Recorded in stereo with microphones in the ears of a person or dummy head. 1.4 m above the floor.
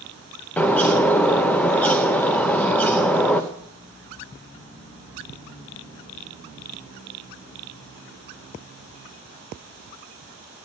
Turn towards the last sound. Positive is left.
turn(degrees=10)  # may be behind; listen again after turning